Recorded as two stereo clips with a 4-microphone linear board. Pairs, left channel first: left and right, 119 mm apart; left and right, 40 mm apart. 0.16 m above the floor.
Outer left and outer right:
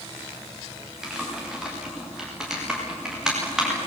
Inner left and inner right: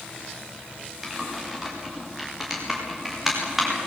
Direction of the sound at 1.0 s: 5° right (ahead or behind).